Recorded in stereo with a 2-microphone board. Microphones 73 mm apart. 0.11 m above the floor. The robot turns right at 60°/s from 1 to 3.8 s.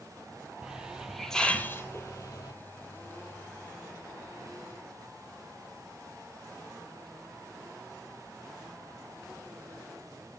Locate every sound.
0.6 s a hiss: 10° right, 0.9 m; by 2.5 s 85° left, 0.9 m